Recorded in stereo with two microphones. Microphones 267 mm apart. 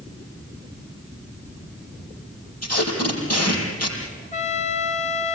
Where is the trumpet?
30° left (ahead or behind), 2 m.